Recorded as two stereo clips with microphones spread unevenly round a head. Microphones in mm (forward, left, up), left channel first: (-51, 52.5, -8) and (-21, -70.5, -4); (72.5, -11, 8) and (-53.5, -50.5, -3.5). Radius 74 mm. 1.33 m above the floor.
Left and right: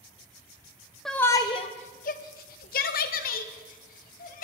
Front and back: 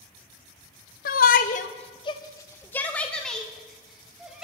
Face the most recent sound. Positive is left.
turn(degrees=110)